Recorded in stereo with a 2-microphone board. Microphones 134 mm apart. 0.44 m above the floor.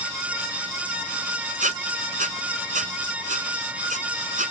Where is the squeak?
75° right (ahead or behind).